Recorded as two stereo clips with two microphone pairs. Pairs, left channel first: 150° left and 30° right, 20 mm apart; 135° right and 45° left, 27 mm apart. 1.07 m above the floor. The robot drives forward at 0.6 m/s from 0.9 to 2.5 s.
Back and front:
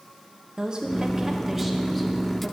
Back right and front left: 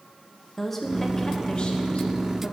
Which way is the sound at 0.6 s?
60° right.